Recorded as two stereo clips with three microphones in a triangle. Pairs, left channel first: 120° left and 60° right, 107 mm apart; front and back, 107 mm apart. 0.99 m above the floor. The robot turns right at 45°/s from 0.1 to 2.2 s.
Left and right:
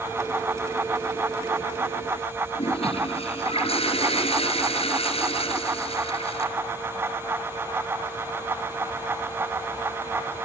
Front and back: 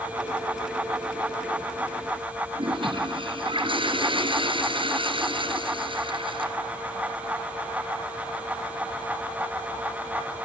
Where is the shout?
No shout in this recording.